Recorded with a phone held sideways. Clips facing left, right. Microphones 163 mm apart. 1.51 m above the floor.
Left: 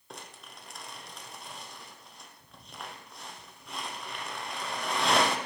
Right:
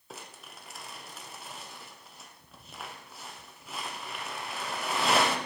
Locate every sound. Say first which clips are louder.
0.1 s crumpling: even; centre (ahead or behind), 0.7 m